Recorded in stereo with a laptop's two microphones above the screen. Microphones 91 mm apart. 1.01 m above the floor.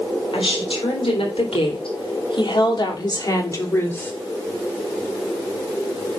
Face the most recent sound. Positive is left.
turn(degrees=20)  # may be behind; listen again after turning